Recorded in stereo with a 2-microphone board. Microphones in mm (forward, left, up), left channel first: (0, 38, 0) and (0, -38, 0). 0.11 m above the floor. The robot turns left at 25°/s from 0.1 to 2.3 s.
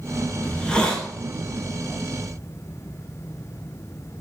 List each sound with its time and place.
0.4 s a hiss: 15° left (ahead or behind), 0.6 m; by 1.1 s 10° left (ahead or behind), 0.6 m